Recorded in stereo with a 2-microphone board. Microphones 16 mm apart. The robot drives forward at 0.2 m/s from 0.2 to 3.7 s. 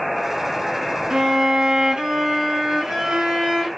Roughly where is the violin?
Right.